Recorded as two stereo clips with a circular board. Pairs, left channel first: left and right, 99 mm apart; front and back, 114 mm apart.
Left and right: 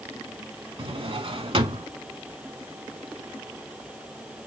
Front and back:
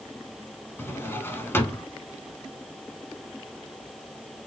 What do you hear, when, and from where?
0.8 s a drawer: 70° right, 0.7 m